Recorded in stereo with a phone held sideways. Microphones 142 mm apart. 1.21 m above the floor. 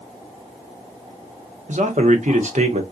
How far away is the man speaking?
About 0.8 m.